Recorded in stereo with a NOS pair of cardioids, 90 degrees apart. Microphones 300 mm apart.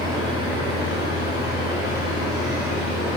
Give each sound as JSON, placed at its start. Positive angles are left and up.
{"t": 0.0, "sound": "a machine running", "azimuth_deg": -15, "distance_m": 2.5}